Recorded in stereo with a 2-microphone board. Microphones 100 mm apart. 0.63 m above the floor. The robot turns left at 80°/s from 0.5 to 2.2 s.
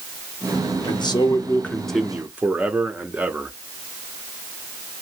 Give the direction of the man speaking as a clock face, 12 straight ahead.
9 o'clock.